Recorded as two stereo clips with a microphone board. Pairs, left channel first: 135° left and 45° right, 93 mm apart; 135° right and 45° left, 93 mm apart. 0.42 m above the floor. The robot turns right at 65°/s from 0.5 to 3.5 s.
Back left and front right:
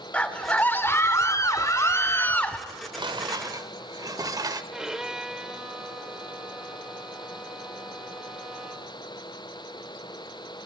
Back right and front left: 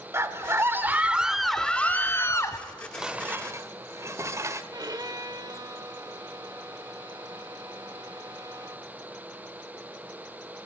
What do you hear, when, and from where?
0.1 s a scream: 70° left, 1.3 m; by 2.6 s 155° right, 1.3 m
2.7 s dishes clattering: 60° right, 0.9 m; by 4.6 s 5° right, 0.9 m
4.7 s a violin: 35° left, 1.2 m